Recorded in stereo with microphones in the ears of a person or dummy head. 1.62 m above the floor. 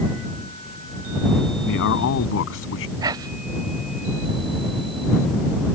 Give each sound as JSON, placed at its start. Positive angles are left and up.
{"t": 1.7, "sound": "a man speaking", "side_deg": 65}
{"t": 3.0, "sound": "whispering", "side_deg": -25}